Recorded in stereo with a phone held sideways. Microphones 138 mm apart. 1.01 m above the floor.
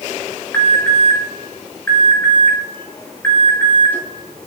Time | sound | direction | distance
0.5 | an alarm | 15° left (ahead or behind) | 3.5 m